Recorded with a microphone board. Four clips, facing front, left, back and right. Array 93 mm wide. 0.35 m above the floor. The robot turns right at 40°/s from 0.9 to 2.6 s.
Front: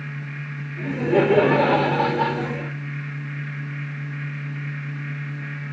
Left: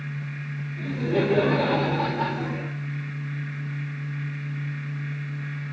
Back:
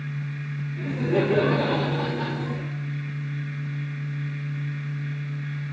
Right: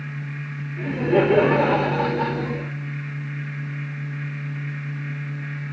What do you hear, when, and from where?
0.8 s laughter: 70° right, 0.9 m; by 2.7 s straight ahead, 0.9 m